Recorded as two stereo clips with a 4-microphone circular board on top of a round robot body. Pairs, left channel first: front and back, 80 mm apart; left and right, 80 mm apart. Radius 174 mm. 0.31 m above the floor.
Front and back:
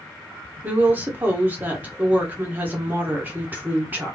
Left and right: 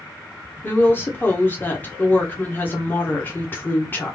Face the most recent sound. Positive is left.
turn(degrees=130)